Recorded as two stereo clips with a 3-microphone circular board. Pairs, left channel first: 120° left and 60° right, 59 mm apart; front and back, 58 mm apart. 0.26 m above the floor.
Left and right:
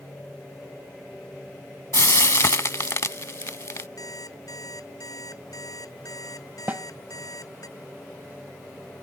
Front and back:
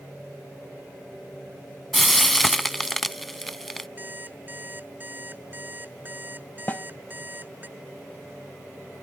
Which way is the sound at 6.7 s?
30° right.